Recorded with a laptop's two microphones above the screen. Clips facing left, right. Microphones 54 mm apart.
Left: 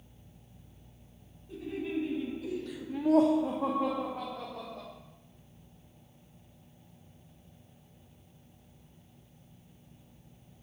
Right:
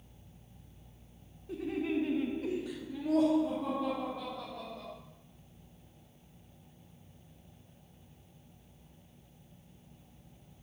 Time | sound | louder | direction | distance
1.5 | laughter | right 2 dB | 70° right (ahead or behind) | 1.8 m